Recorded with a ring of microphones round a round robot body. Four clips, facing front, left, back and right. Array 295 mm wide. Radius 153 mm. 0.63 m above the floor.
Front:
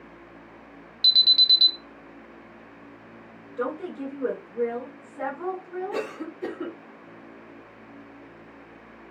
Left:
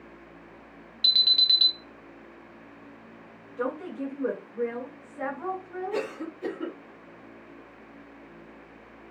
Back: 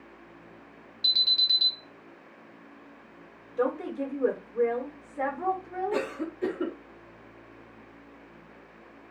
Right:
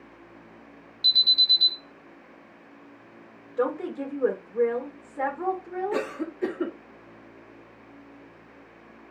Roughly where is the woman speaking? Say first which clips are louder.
Right 4 dB, back 2 dB; right.